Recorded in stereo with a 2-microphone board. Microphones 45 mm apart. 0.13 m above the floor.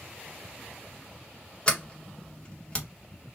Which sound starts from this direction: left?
A sliding door, at 1.7 s.